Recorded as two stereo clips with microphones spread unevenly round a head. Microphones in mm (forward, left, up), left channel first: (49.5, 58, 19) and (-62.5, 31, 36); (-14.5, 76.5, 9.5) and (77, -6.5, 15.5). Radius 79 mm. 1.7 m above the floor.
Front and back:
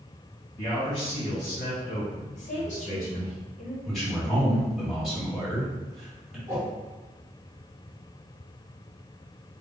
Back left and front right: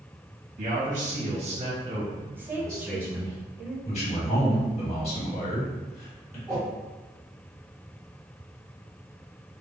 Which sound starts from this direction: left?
A man speaking, at 3.9 s.